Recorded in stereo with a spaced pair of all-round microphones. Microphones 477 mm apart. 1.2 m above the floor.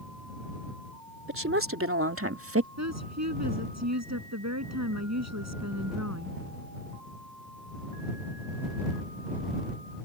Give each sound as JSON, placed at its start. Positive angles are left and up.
{"t": 1.3, "sound": "a woman speaking", "side_deg": -25}
{"t": 2.8, "sound": "a woman speaking", "side_deg": -35}